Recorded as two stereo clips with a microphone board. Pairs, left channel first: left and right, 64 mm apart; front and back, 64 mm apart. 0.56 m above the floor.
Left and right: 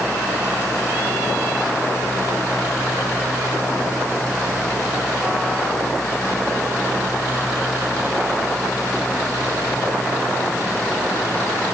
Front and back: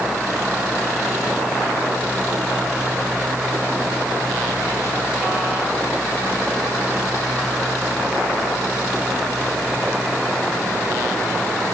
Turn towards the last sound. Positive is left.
No sound to turn to.